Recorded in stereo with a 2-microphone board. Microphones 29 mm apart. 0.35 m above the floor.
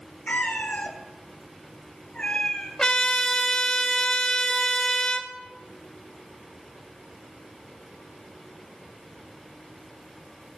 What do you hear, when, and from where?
0.3 s a cat meowing: 70° left (ahead or behind), 2.0 m; by 2.7 s 30° left (ahead or behind), 2.5 m
2.8 s a trumpet: 25° left (ahead or behind), 1.1 m